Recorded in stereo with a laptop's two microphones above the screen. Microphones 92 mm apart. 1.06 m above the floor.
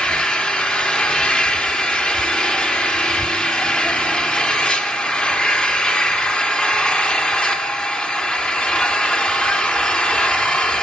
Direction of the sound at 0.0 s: 10° left (ahead or behind).